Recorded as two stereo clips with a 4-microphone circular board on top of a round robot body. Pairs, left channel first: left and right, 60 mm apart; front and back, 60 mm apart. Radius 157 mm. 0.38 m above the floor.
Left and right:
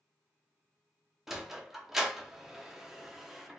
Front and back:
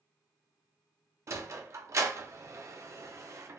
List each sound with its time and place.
1.3 s a sliding door: 175° right, 0.6 m